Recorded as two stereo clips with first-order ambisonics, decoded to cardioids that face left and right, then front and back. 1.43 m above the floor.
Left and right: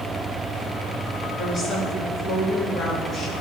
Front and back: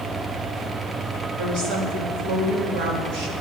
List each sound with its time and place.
1.4 s a woman speaking: 150° left, 3 m